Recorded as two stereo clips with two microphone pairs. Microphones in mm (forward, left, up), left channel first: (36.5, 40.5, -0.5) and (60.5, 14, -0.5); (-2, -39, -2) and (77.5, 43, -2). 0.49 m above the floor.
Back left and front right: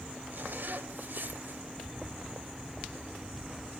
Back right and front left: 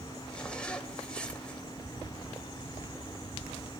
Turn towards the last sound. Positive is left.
turn(degrees=-55)